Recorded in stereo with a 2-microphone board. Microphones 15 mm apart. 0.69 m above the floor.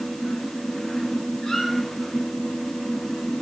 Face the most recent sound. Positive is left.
turn(degrees=65)  # may be behind; listen again after turning